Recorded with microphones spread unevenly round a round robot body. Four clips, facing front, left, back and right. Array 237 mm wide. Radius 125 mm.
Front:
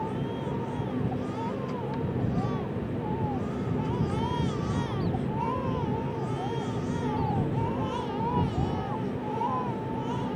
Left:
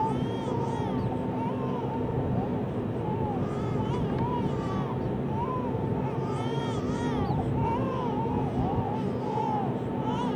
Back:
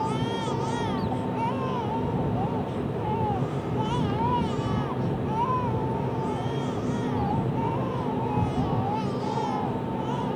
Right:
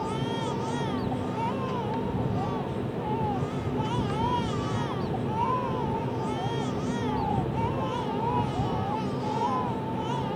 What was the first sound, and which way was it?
Only background noise.